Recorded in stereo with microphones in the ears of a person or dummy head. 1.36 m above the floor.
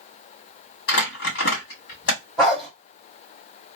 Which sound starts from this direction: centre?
A dog barking, at 2.4 s.